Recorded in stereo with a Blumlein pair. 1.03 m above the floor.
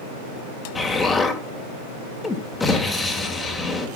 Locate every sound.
0.8 s an explosion: 15° left, 2 m